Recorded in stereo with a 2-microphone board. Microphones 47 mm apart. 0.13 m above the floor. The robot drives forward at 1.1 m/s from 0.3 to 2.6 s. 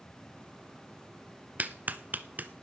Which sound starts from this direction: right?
A clap, at 1.6 s.